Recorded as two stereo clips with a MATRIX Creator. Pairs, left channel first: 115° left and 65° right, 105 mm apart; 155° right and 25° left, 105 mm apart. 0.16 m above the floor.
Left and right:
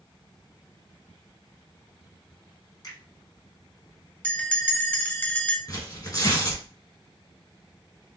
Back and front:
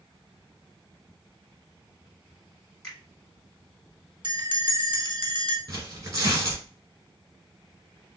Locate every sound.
2.8 s a finger snap: 125° left, 1.8 m
4.2 s a bell: 40° left, 0.8 m
5.7 s tearing paper: 70° left, 2 m